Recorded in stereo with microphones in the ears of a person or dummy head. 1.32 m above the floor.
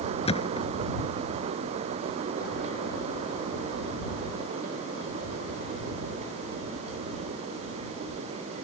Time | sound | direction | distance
0.2 | a thud | 35° left (ahead or behind) | ?